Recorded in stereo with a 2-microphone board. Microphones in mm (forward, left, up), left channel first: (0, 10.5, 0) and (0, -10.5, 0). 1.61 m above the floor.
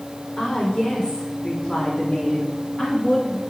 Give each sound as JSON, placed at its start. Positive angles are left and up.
{"t": 0.4, "sound": "a woman speaking", "side_deg": 75, "distance_m": 4.5}